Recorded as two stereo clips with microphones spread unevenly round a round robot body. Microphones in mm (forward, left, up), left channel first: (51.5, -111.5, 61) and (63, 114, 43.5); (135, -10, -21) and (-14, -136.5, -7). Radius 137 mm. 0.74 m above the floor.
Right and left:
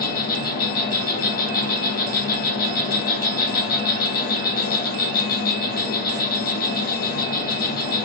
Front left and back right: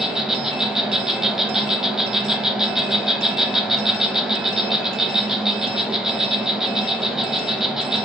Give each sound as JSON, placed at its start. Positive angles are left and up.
{"t": 0.0, "sound": "an insect", "azimuth_deg": -55, "distance_m": 0.8}